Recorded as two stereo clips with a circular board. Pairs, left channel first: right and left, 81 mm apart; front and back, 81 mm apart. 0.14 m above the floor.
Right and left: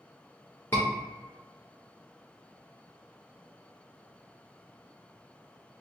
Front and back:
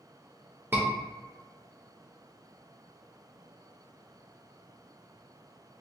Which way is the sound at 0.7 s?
140° right.